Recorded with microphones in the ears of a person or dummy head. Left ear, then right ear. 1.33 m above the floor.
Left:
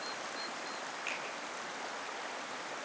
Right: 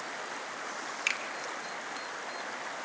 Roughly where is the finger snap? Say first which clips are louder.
Right 9 dB; right.